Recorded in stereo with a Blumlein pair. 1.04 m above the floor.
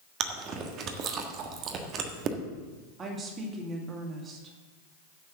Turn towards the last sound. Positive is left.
turn(degrees=-20)